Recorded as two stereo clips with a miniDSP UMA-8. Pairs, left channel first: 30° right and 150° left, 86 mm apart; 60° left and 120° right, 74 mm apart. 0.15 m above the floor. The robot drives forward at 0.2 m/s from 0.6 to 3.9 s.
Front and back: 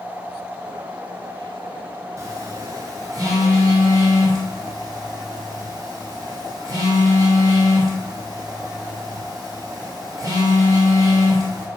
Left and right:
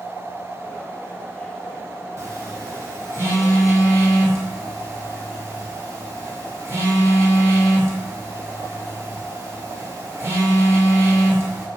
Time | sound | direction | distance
2.2 | a phone buzzing | 165° right | 0.6 m